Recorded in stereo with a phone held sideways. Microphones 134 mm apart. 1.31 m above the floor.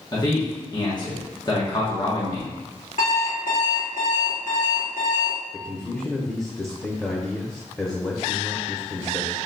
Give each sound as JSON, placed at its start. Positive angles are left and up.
{"t": 0.1, "sound": "a man speaking", "side_deg": 35, "distance_m": 1.1}
{"t": 3.0, "sound": "an alarm clock", "side_deg": 70, "distance_m": 1.8}
{"t": 5.5, "sound": "a man speaking", "side_deg": 20, "distance_m": 0.7}